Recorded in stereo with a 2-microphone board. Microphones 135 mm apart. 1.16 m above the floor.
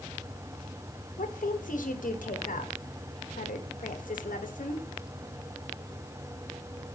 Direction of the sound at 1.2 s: 75° left (ahead or behind).